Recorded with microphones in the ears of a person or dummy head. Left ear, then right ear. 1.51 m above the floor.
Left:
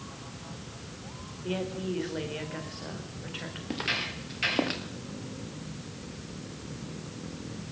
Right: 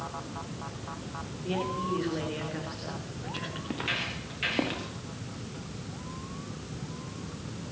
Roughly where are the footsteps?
Centre.